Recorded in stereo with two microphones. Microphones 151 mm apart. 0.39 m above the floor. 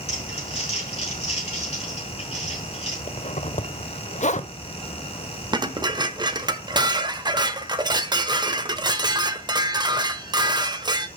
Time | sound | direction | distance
0.1 | crumpling | 40° left (ahead or behind) | 5.5 m
3.1 | a zipper | 50° left (ahead or behind) | 0.6 m
5.5 | dishes clattering | 25° right (ahead or behind) | 0.9 m